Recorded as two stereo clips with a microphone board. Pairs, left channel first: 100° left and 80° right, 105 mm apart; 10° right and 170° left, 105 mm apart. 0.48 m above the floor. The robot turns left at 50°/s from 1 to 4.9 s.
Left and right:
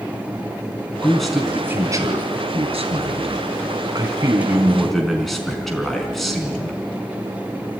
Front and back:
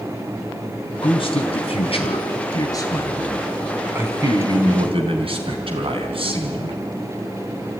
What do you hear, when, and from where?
1.0 s a man speaking: 25° left, 4.5 m; by 6.8 s 170° right, 4.5 m